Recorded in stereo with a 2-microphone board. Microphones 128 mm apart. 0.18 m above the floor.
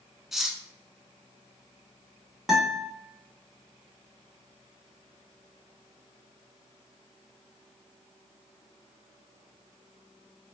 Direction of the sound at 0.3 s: Centre (ahead or behind).